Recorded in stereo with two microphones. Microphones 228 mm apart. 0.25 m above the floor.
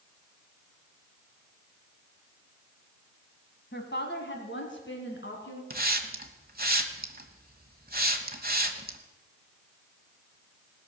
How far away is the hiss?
About 1.1 m.